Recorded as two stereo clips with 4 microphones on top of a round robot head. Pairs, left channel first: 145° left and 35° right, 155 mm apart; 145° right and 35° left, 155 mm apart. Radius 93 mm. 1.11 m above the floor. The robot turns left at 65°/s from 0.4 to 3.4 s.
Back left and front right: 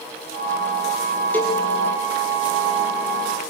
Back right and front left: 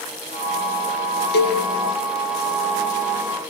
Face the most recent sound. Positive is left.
turn(degrees=95)